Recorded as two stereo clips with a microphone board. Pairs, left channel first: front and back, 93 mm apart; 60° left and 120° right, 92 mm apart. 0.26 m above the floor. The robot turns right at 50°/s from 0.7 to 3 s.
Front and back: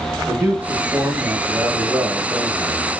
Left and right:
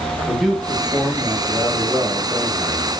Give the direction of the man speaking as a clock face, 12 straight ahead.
7 o'clock.